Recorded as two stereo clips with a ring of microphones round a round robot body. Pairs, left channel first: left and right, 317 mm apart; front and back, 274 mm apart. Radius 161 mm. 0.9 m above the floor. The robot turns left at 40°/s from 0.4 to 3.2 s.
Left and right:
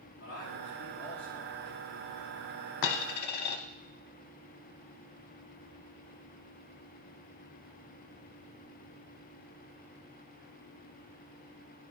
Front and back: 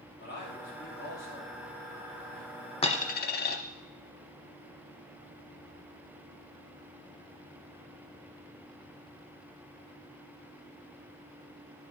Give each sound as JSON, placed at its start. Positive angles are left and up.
{"t": 0.2, "sound": "a man speaking", "azimuth_deg": 50, "distance_m": 2.5}
{"t": 2.8, "sound": "a dropped coin", "azimuth_deg": 70, "distance_m": 0.9}